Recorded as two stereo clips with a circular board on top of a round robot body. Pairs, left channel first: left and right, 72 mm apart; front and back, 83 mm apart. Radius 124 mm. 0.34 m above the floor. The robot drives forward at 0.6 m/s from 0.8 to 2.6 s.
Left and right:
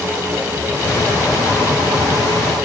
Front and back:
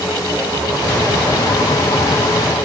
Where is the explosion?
No explosion in this recording.